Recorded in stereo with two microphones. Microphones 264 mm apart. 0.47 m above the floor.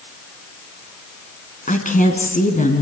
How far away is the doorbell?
No doorbell in this recording.